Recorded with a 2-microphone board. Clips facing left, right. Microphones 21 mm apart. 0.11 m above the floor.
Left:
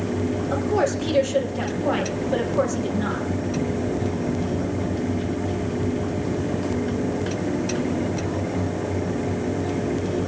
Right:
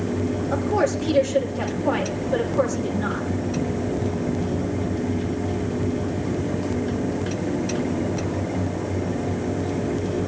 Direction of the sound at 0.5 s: 20° left (ahead or behind).